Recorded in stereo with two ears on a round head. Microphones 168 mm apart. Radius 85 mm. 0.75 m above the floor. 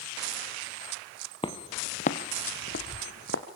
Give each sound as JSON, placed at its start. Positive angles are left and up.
{"t": 1.4, "sound": "footsteps", "side_deg": 25, "distance_m": 1.4}